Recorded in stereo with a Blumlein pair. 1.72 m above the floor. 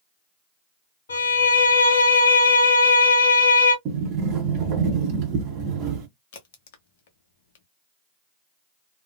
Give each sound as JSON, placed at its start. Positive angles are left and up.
{"t": 1.1, "sound": "a violin", "azimuth_deg": 65, "distance_m": 1.1}
{"t": 3.9, "sound": "a sliding door", "azimuth_deg": -35, "distance_m": 1.1}
{"t": 6.3, "sound": "a crack", "azimuth_deg": 50, "distance_m": 0.8}